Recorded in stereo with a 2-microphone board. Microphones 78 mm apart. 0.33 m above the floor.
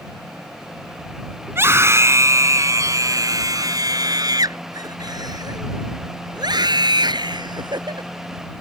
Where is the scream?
30° right (ahead or behind); by 8.1 s 70° right (ahead or behind).